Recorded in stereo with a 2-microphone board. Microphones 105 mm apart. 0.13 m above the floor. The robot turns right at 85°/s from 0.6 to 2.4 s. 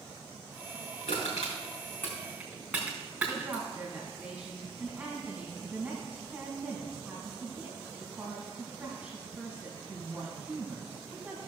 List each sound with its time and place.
1.1 s crushing: 75° left (ahead or behind), 4.5 m; by 3.6 s 10° right (ahead or behind), 4.5 m
3.3 s a woman speaking: 10° right (ahead or behind), 4 m